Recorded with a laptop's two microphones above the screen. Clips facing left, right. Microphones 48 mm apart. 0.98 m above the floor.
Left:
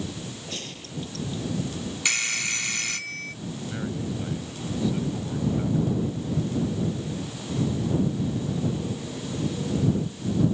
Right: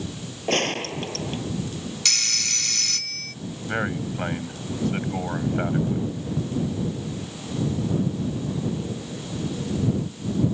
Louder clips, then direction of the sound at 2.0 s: Left 4 dB; 20° left (ahead or behind).